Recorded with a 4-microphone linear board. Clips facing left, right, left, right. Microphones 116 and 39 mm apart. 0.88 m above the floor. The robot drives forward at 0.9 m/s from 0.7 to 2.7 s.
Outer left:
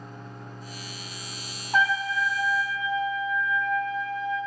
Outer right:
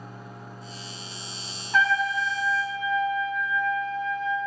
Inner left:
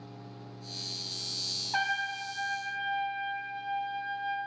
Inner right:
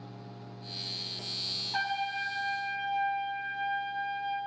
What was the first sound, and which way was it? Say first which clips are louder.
A trumpet: outer right 1 dB, inner left 1 dB; 30° left (ahead or behind).